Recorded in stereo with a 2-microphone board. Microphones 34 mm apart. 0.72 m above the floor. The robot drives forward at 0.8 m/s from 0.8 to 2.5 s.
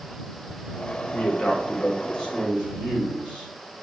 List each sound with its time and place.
1.1 s a man speaking: 35° left (ahead or behind), 0.8 m; by 3.5 s 20° left (ahead or behind), 1.3 m